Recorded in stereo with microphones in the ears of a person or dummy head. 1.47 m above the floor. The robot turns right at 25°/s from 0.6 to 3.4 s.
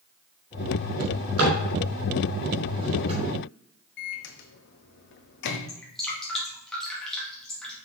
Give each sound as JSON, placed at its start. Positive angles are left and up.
{"t": 1.0, "sound": "a drawer", "side_deg": -80, "distance_m": 5.0}
{"t": 4.0, "sound": "a microwave", "side_deg": 65, "distance_m": 0.9}
{"t": 5.7, "sound": "dripping", "side_deg": 0, "distance_m": 2.5}